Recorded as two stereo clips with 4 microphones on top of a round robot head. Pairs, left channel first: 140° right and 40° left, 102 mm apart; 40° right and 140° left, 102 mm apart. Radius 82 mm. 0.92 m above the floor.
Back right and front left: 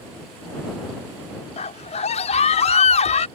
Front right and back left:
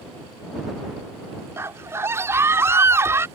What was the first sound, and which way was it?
A scream, 155° right.